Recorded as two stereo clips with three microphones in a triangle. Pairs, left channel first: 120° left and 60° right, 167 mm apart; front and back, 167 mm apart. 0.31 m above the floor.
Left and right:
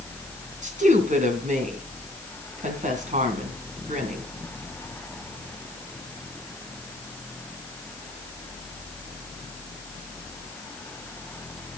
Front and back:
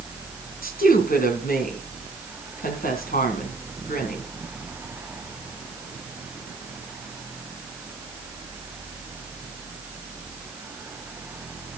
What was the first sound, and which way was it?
A woman speaking, 25° right.